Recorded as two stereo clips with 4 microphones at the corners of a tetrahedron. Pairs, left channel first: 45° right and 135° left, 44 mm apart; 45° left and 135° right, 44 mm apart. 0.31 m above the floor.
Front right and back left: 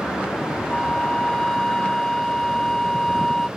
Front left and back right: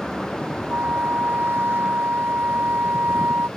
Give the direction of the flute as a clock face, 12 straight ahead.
4 o'clock.